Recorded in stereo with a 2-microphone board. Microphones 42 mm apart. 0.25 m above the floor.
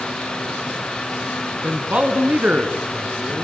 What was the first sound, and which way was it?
A man speaking, 35° right (ahead or behind).